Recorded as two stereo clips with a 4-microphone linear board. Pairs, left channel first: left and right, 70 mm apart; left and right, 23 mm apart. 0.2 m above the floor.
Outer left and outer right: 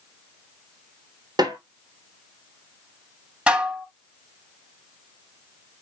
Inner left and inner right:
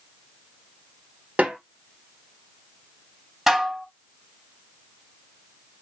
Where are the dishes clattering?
15° right (ahead or behind), 0.9 m.